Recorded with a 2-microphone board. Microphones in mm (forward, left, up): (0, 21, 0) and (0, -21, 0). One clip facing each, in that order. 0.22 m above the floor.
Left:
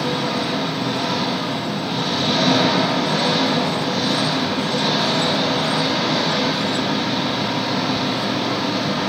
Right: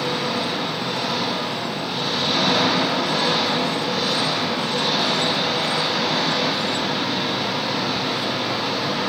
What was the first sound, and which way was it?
An engine running, 50° left (ahead or behind).